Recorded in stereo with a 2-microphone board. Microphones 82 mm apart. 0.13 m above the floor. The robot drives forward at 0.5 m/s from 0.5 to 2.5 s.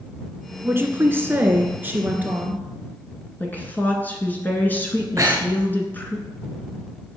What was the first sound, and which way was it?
A woman speaking, 30° right (ahead or behind).